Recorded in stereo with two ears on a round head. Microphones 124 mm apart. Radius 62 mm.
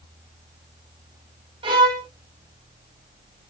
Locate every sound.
1.6 s a violin: 35° right (ahead or behind), 2.5 m